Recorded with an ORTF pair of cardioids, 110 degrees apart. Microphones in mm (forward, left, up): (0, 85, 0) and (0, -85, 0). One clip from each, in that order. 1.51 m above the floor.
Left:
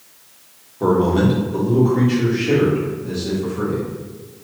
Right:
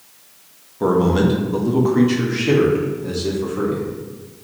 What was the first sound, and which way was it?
A man speaking, 10° right.